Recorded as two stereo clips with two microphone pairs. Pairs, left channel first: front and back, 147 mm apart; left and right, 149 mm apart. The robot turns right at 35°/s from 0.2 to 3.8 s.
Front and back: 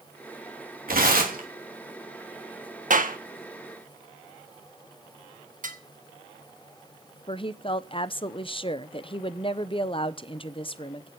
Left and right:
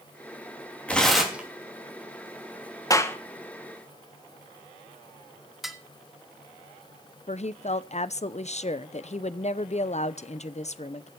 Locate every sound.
0.9 s tearing paper: 170° left, 3 m; by 1.5 s 165° right, 3 m
2.9 s a clap: 160° left, 1.4 m; by 3.2 s 165° left, 1.4 m
5.6 s dishes clattering: straight behind, 1.3 m
7.3 s a woman speaking: 50° left, 0.7 m